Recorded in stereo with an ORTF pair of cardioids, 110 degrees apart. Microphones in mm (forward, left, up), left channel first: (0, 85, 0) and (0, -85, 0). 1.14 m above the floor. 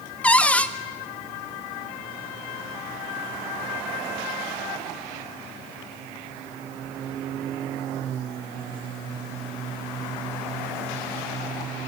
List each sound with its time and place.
0.2 s a cupboard door: 5° left, 1.1 m